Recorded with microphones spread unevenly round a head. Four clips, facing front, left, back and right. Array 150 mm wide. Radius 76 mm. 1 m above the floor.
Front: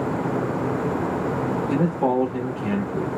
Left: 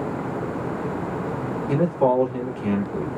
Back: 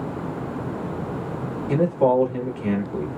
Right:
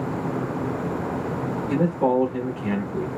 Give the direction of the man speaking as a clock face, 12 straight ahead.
7 o'clock.